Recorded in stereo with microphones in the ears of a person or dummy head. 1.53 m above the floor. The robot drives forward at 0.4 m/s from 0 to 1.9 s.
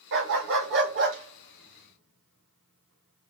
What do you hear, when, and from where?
0.1 s a dog barking: 60° right (ahead or behind), 2.0 m